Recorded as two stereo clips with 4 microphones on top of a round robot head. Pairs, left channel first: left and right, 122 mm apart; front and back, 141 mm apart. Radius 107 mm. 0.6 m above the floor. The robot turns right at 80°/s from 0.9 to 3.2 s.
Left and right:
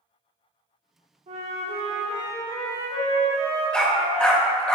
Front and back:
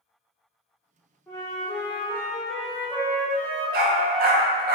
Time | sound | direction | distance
1.3 | a flute | 80° right | 1.4 m
3.7 | a dog barking | 175° left | 0.8 m